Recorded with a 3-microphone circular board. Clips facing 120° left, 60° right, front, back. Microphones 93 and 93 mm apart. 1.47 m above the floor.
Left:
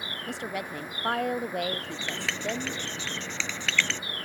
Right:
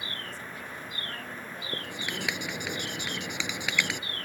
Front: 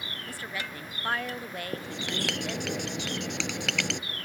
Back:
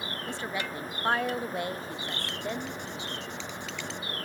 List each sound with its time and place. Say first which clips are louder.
0.3 s a woman speaking: left 7 dB, back 4 dB; 115° left
1.7 s writing: left 1 dB, front 2 dB; 20° left